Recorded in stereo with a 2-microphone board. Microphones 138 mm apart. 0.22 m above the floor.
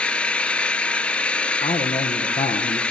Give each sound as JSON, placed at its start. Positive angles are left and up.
{"t": 0.0, "sound": "an engine running", "side_deg": 10, "distance_m": 0.8}
{"t": 1.6, "sound": "a man speaking", "side_deg": 65, "distance_m": 6.0}